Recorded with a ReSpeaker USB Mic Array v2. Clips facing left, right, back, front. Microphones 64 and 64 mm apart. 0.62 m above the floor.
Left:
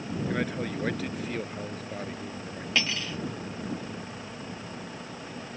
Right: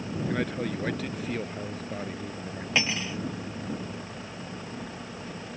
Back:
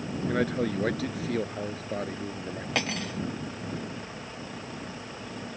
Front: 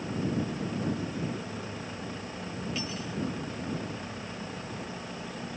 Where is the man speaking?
175° left; by 2.6 s 175° right.